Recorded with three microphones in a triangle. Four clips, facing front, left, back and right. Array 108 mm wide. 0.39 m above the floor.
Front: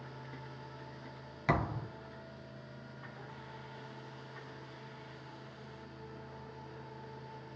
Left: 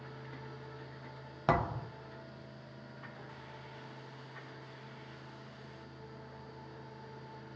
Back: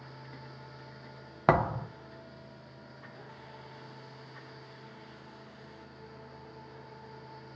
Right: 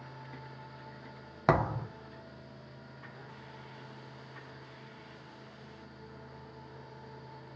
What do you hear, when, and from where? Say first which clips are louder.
1.5 s a thud: right 3 dB, back 8 dB; 160° right, 1.0 m